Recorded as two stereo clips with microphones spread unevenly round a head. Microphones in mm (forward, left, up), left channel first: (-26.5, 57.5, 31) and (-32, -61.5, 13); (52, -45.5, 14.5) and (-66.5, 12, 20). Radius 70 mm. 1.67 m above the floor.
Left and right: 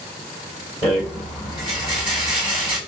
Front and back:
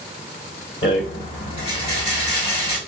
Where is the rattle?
30° left, 4 m.